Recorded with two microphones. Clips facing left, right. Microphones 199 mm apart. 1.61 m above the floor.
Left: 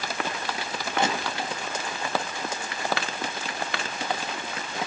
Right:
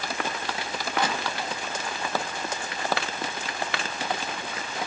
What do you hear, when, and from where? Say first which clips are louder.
1.0 s crushing: left 2 dB; 25° left (ahead or behind), 1.1 m